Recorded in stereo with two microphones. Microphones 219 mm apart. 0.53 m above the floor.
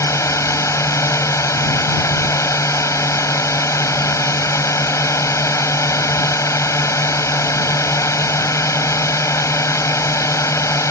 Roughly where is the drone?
Centre.